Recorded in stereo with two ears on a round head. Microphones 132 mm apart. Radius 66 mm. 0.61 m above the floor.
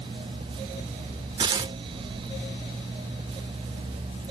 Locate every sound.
1.4 s tearing paper: 30° right (ahead or behind), 0.5 m